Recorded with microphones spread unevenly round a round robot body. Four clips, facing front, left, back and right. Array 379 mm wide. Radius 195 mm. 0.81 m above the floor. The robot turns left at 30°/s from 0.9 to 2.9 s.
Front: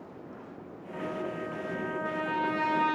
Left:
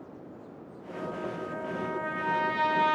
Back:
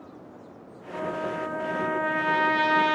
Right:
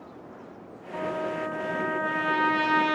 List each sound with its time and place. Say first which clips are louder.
0.9 s a trumpet: right 5 dB, back 5 dB; 115° right, 3 m; by 3.0 s 175° right, 3 m